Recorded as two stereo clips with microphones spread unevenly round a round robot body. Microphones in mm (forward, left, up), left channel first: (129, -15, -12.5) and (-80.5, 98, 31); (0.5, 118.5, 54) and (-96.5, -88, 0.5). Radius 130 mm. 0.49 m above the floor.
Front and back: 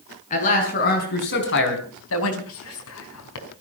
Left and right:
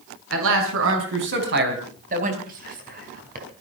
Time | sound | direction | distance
0.3 | a man speaking | 90° right | 5 m
2.5 | whispering | 65° right | 4.5 m